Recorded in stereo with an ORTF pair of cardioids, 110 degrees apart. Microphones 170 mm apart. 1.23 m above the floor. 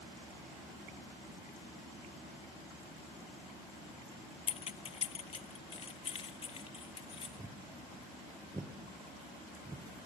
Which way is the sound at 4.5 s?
35° left.